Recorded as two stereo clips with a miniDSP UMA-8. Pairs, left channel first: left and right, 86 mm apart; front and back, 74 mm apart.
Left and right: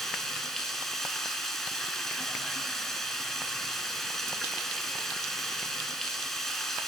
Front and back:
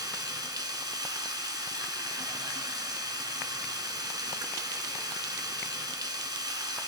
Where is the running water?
175° left, 1.1 m.